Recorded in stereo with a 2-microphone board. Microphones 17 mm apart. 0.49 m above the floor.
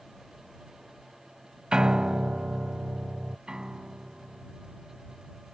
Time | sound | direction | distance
1.7 | a piano | 60° right (ahead or behind) | ?
3.5 | a piano | 50° right (ahead or behind) | ?